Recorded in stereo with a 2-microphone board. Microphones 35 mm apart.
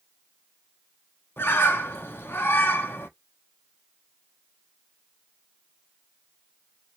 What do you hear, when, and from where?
1.4 s a bird: 85° left, 1.0 m